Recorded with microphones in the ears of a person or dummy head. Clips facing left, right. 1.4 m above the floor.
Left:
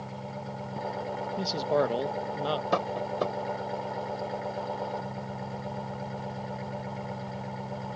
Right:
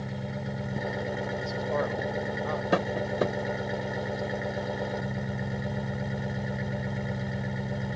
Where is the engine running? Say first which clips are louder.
Right 3 dB; 15° right (ahead or behind).